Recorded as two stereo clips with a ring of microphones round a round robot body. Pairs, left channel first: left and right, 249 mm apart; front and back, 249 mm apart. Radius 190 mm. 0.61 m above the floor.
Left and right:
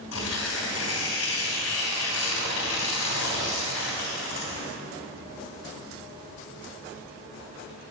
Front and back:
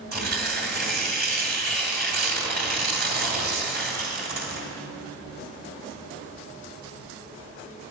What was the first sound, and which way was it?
Tearing paper, 130° left.